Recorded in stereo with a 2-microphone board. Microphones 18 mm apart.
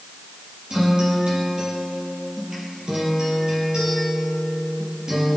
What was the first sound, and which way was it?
A guitar, 55° right (ahead or behind).